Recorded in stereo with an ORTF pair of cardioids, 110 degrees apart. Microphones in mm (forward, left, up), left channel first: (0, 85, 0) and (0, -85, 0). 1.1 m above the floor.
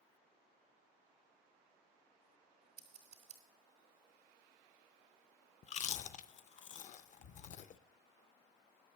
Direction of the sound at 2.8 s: 60° right.